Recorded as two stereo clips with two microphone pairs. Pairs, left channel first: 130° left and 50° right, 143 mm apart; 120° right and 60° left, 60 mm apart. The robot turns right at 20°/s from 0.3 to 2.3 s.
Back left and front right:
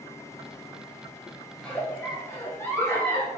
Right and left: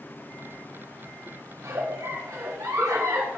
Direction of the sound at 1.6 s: 50° left.